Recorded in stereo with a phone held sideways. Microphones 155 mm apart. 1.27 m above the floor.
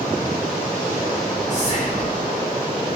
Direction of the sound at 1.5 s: 50° left (ahead or behind).